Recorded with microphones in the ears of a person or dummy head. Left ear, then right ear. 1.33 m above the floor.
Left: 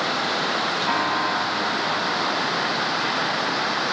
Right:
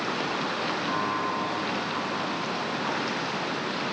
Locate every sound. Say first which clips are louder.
0.9 s a piano: left 6 dB; 25° left (ahead or behind), 2.5 m